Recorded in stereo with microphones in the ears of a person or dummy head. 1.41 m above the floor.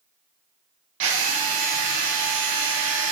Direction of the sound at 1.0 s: 70° right (ahead or behind).